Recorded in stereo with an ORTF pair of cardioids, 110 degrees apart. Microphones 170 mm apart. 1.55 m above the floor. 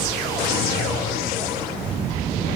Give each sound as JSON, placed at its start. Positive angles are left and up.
{"t": 0.4, "sound": "a drawer", "azimuth_deg": 70, "distance_m": 1.9}